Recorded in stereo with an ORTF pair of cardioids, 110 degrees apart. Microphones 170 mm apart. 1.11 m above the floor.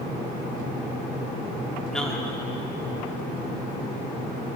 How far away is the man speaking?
About 2 m.